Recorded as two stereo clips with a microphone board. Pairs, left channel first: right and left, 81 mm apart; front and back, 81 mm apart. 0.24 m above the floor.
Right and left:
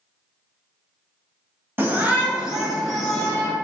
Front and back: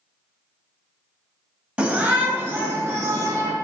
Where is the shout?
120° left, 1.1 m; by 3.5 s 155° right, 1.3 m.